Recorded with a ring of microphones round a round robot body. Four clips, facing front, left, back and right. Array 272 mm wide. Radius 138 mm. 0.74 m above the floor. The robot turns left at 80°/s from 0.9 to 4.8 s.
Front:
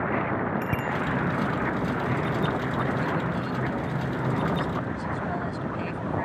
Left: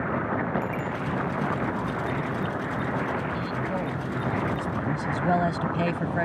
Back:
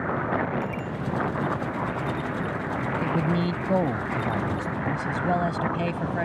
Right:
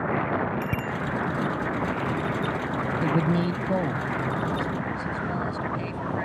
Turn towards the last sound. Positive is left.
turn(degrees=120)